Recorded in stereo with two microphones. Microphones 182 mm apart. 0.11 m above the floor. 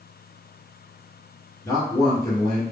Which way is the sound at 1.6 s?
20° left (ahead or behind).